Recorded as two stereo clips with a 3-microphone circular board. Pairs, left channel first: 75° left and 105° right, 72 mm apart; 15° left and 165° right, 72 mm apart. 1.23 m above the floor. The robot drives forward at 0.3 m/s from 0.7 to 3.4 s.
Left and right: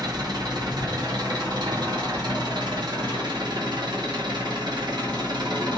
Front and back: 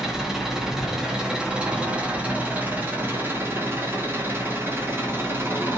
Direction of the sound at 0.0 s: 80° right.